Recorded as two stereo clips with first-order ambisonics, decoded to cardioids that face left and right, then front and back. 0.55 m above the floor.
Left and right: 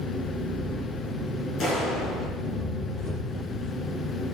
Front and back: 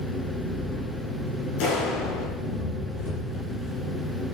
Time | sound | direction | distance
0.0 | an engine running | 30° left | 6.5 m
1.6 | a clap | 20° left | 6 m